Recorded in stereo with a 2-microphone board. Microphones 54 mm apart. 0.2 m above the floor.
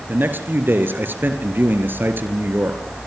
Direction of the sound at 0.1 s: 40° right (ahead or behind).